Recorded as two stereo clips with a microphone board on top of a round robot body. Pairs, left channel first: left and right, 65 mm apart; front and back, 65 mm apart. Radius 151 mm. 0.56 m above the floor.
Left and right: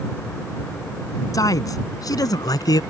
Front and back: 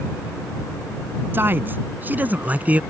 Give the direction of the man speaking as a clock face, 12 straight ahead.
8 o'clock.